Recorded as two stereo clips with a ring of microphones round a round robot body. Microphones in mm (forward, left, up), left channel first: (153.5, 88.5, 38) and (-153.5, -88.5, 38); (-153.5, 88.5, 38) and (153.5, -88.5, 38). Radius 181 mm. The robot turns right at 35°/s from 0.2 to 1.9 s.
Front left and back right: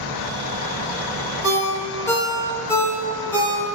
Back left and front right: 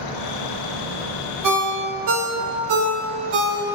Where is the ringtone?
70° right, 0.9 m; by 3.6 s 55° right, 0.9 m.